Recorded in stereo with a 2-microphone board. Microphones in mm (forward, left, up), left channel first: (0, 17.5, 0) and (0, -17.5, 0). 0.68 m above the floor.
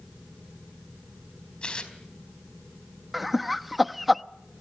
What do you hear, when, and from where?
1.6 s tearing paper: 30° left (ahead or behind), 3.5 m
3.1 s laughter: 5° right (ahead or behind), 0.6 m